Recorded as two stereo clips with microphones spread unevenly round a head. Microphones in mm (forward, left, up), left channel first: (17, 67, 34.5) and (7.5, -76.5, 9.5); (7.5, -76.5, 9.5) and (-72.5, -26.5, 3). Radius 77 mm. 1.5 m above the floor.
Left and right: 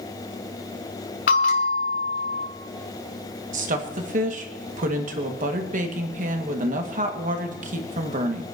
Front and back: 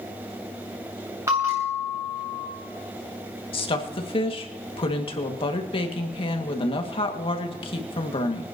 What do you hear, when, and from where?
1.3 s a bell: 75° left, 2.5 m
3.5 s a woman speaking: 55° right, 2 m